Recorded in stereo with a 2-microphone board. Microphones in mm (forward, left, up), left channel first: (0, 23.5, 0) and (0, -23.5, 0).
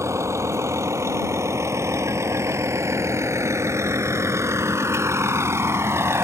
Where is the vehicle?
90° right; by 6.2 s 75° right (ahead or behind).